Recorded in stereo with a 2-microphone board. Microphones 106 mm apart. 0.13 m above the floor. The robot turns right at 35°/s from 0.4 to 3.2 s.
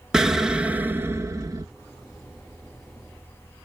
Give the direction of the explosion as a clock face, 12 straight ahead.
6 o'clock.